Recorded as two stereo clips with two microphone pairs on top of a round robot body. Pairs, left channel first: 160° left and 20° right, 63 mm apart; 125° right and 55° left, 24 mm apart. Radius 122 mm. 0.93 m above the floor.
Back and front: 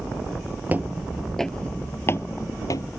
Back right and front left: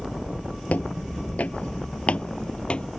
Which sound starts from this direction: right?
Footsteps, at 0.7 s.